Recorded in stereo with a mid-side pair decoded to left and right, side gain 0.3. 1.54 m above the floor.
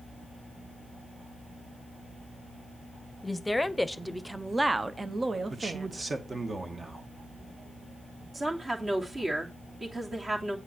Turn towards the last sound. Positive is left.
turn(degrees=-40)